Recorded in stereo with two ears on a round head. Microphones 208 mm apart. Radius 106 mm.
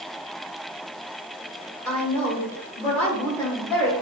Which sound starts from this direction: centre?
A woman speaking, at 1.9 s.